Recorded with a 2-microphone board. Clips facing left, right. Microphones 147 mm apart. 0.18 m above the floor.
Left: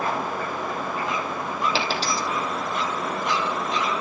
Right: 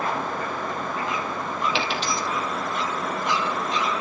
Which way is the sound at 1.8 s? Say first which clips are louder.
Left 1 dB; 35° left (ahead or behind).